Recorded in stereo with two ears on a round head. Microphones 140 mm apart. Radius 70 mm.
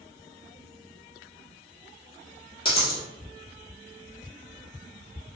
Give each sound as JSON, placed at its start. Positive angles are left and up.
{"t": 2.6, "sound": "a dropped coin", "side_deg": 35, "distance_m": 1.6}